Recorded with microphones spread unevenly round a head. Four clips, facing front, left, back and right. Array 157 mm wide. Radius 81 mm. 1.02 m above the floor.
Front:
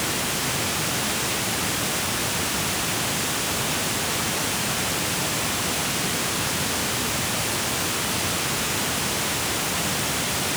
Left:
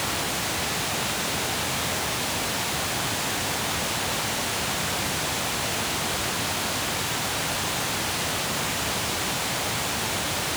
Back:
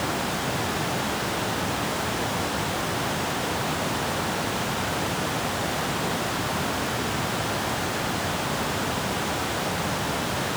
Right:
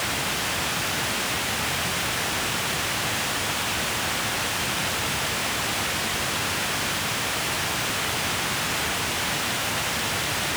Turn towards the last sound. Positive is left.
No sound to turn to.